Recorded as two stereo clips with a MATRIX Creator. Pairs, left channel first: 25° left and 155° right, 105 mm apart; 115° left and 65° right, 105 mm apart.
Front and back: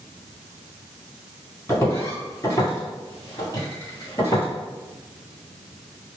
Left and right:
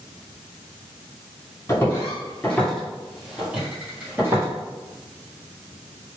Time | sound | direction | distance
1.7 | footsteps | 70° left | 1.9 m